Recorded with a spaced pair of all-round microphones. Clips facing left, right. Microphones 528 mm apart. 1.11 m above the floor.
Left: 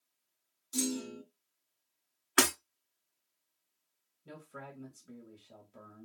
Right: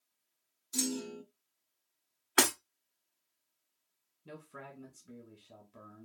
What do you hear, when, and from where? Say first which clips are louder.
0.7 s a clunk: left 1 dB; 55° left (ahead or behind), 1.2 m
2.4 s breaking glass: even; 20° left (ahead or behind), 1.2 m
4.2 s a man speaking: even; 20° right (ahead or behind), 1.3 m